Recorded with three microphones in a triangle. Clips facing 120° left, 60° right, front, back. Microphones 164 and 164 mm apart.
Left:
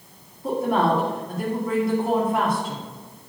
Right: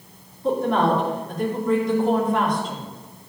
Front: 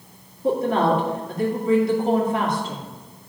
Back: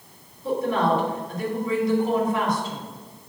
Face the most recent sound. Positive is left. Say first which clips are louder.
# right 1 dB, front 3 dB
turn(degrees=35)